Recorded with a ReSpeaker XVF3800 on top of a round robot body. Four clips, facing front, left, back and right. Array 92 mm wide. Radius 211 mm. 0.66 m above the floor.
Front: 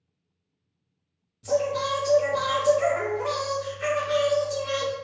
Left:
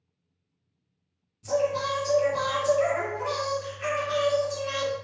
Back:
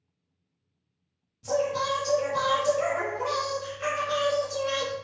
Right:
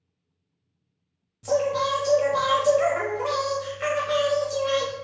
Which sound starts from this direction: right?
Singing, at 1.4 s.